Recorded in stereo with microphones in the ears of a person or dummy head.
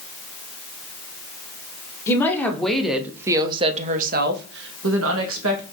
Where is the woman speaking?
15° left (ahead or behind), 1.2 m; by 5.6 s 85° right, 1.2 m.